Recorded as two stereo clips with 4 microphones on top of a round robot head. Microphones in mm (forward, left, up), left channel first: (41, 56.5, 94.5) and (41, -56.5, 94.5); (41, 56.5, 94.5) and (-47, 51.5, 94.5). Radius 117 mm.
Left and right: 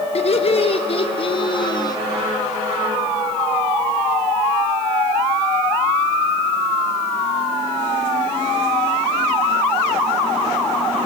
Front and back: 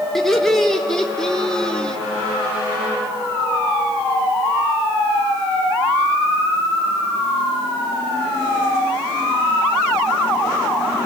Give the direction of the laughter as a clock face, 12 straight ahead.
9 o'clock.